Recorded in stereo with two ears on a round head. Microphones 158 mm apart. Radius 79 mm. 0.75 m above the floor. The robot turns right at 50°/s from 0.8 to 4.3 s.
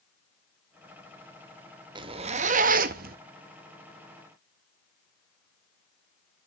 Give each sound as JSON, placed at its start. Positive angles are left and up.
{"t": 1.9, "sound": "a zipper", "azimuth_deg": -145, "distance_m": 0.5}